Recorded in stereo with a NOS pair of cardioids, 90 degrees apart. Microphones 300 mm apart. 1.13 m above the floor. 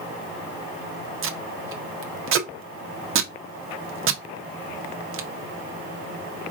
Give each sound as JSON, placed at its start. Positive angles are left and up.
{"t": 1.2, "sound": "tape being pulled", "azimuth_deg": -45, "distance_m": 0.8}